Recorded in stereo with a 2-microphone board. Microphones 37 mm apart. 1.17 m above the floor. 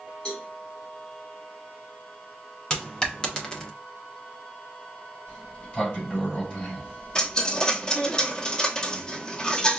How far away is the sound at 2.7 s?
About 0.7 m.